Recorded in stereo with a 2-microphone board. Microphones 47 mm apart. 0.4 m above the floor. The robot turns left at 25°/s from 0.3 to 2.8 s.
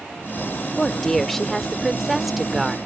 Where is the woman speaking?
10° left (ahead or behind); by 2.8 s 5° right (ahead or behind).